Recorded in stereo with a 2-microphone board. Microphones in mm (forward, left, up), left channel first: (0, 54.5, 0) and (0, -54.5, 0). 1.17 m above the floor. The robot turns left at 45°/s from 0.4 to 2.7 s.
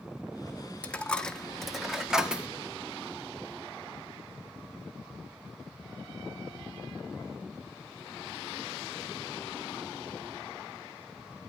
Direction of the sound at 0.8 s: 10° left (ahead or behind).